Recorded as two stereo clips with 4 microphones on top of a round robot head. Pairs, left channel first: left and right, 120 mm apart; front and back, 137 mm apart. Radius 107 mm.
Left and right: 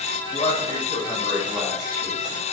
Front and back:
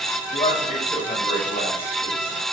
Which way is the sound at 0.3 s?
40° left.